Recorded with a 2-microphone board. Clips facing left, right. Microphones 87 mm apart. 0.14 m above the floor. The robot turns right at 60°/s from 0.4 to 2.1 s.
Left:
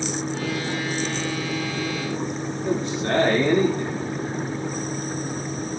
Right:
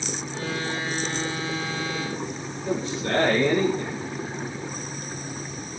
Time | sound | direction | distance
2.6 | a man speaking | 55° left (ahead or behind) | 7 m